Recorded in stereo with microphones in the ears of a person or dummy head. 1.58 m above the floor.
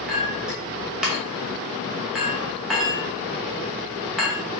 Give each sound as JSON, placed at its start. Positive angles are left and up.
{"t": 0.1, "sound": "a clink", "side_deg": -5, "distance_m": 0.8}